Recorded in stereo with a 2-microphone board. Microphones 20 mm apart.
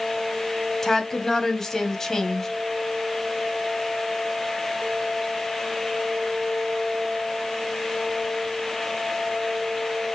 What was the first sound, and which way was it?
A woman speaking, 20° left (ahead or behind).